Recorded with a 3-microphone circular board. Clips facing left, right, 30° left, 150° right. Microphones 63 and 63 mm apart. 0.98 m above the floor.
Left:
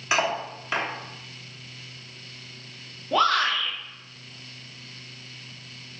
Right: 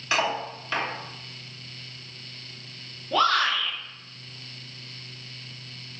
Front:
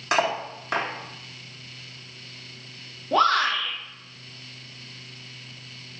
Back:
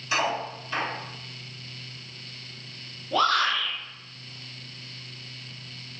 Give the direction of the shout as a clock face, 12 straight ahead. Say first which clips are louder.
Even, front 3 dB; 11 o'clock.